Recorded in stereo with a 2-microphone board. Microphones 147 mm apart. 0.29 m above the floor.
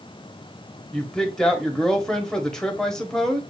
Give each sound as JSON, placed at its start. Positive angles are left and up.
{"t": 0.9, "sound": "a woman speaking", "side_deg": 5, "distance_m": 1.1}